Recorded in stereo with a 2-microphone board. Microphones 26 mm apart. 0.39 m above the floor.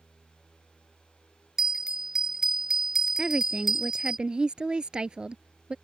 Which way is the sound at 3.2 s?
30° right (ahead or behind).